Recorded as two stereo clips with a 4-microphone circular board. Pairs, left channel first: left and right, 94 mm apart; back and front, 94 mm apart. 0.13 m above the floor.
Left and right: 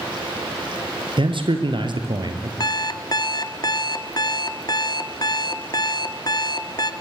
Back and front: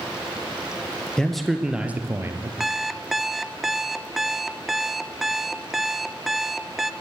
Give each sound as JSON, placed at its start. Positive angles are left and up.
{"t": 1.2, "sound": "a man speaking", "azimuth_deg": -100, "distance_m": 3.0}
{"t": 2.6, "sound": "an alarm clock", "azimuth_deg": 85, "distance_m": 0.7}